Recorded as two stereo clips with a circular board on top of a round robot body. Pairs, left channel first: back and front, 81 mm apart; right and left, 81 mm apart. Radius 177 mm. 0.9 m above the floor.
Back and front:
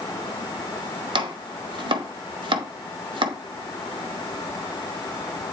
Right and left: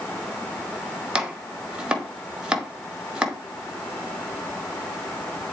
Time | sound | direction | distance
1.1 | chopping | 10° left | 1.4 m